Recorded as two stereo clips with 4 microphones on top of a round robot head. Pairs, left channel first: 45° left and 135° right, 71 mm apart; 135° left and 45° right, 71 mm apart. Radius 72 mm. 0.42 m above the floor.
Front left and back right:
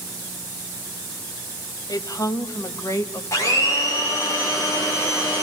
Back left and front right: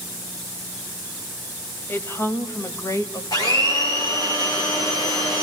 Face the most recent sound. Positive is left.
turn(degrees=95)